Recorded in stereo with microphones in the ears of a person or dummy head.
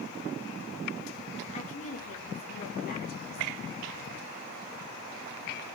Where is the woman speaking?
45° left (ahead or behind), 3.5 m; by 3.6 s 60° left (ahead or behind), 4 m.